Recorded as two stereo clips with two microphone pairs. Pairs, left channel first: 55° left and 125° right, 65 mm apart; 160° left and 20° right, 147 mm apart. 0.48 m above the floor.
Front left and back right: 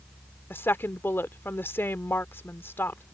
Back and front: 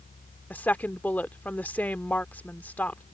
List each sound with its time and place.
0.5 s a woman speaking: 85° left